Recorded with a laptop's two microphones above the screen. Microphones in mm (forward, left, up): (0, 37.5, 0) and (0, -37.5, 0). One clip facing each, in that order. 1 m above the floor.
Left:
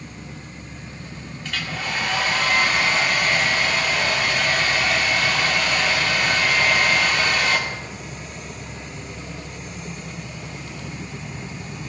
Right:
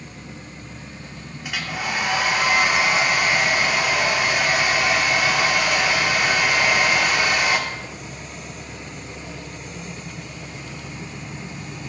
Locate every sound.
1.4 s a hair dryer: 15° right (ahead or behind), 2 m